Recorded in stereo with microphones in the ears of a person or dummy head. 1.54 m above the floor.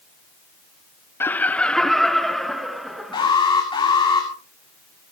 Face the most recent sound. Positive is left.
turn(degrees=25)  # may be behind; listen again after turning